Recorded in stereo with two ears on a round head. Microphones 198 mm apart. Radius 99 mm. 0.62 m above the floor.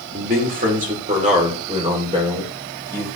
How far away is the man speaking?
About 2 m.